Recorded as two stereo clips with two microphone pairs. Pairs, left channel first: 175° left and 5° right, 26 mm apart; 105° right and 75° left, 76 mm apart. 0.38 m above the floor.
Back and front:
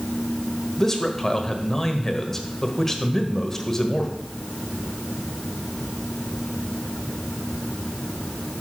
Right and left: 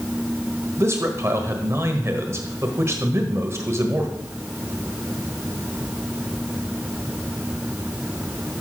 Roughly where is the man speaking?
Left.